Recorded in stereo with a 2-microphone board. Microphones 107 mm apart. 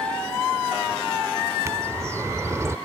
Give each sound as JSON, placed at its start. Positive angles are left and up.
{"t": 1.6, "sound": "a bird", "side_deg": -25}